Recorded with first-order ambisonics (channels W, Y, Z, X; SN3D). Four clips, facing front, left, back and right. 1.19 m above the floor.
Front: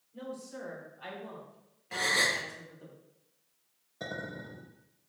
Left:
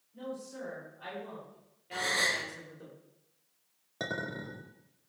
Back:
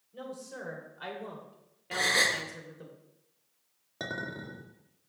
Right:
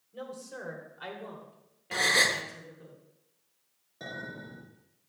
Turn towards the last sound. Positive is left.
turn(degrees=135)